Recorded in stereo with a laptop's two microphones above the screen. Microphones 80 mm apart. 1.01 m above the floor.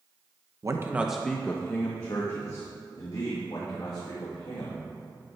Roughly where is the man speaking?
Right.